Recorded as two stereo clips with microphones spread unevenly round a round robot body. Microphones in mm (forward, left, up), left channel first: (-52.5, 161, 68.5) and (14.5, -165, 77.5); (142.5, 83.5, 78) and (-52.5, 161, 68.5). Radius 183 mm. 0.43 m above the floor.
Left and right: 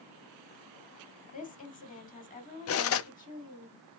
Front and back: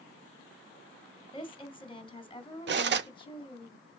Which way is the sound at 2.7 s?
140° left.